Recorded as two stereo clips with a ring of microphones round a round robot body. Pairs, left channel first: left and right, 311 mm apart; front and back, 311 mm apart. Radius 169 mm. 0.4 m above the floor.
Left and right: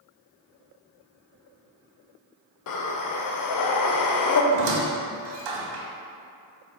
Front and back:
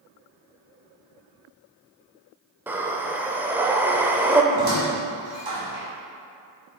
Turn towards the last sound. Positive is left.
turn(degrees=-105)